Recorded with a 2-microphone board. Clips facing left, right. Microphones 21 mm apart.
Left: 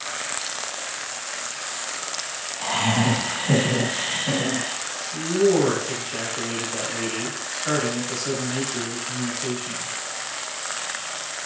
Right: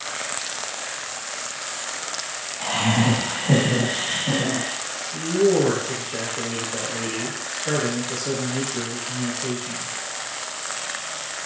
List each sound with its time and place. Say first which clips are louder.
2.6 s laughter: right 1 dB; 5° left (ahead or behind), 1.3 m
5.1 s a man speaking: even; 40° left (ahead or behind), 1.3 m